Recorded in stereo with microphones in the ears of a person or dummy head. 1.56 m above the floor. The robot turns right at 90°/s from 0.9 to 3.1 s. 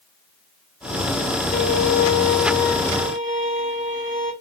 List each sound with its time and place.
1.5 s a violin: 60° left, 1.9 m; by 4.3 s 155° right, 1.9 m